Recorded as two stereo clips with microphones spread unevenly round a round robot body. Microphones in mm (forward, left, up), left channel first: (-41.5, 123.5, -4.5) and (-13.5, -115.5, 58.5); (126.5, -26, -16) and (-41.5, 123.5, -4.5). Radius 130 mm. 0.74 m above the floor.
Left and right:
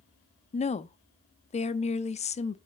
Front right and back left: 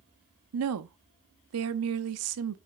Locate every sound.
0.5 s a woman speaking: 150° left, 0.8 m